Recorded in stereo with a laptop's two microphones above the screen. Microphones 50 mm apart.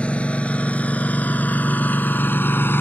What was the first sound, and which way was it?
A lawn mower, 25° left (ahead or behind).